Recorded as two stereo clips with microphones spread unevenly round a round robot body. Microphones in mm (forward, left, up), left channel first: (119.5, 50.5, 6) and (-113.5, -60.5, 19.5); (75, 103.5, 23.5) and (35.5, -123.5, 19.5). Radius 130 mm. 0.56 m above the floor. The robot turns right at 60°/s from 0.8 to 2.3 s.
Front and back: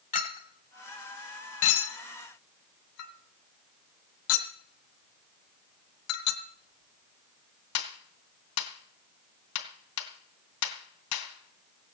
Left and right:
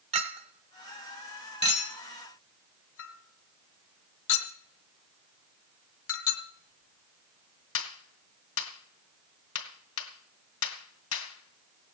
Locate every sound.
0.1 s a clink: 35° right, 2 m; by 11.8 s 55° left, 2 m